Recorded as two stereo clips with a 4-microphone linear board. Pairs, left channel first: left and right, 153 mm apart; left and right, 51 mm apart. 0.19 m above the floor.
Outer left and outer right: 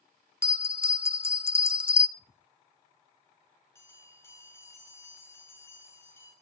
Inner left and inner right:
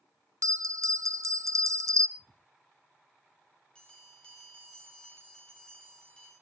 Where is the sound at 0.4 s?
80° right, 0.6 m.